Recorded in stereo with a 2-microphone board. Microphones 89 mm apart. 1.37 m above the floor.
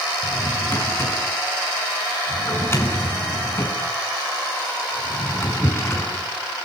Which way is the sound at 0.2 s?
30° left (ahead or behind).